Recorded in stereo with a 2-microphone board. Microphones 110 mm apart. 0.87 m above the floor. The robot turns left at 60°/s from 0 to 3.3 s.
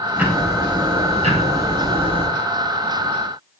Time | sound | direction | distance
0.2 | ticking | 15° right | 3.5 m